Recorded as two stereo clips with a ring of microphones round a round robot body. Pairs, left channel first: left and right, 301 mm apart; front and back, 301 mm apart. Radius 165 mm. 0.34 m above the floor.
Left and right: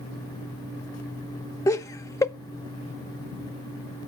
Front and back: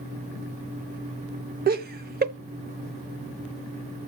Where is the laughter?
160° left, 1.0 m.